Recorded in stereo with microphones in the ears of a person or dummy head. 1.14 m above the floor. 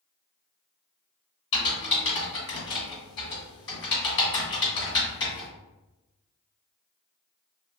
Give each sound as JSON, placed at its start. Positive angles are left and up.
{"t": 1.5, "sound": "typing on a keyboard", "side_deg": 30, "distance_m": 1.3}